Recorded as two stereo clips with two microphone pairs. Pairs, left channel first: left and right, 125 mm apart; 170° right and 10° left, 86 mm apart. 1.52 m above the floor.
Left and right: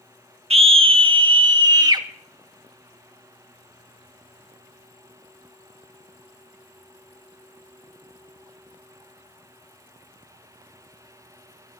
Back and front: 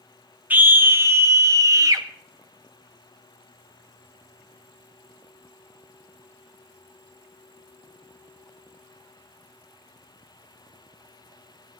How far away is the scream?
About 1.4 m.